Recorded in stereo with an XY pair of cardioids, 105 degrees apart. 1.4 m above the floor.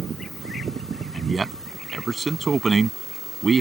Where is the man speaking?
30° right; by 3.6 s 35° right.